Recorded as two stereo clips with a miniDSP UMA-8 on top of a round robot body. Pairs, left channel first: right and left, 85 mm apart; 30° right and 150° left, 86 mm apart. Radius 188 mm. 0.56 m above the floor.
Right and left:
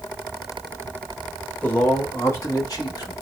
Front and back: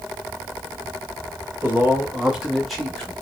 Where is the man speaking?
160° right, 1.5 m; by 3.1 s 110° right, 1.7 m.